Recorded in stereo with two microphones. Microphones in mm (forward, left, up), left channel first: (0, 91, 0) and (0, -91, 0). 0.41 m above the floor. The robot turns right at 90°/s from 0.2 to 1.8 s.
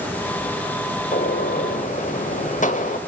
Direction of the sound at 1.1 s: 60° left.